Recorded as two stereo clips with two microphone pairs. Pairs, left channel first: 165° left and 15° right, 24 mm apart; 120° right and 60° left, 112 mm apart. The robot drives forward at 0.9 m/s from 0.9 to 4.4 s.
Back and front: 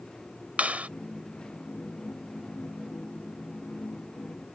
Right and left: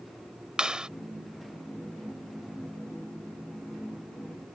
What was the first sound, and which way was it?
A clap, 25° right.